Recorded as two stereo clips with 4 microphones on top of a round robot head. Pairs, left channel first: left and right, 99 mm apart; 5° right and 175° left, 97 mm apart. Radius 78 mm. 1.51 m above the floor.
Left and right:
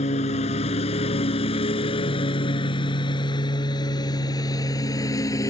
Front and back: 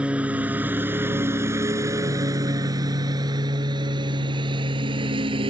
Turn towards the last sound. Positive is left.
turn(degrees=145)